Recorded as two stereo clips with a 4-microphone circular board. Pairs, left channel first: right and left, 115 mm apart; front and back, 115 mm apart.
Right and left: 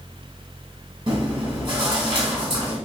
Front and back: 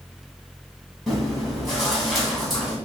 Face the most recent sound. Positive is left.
turn(degrees=85)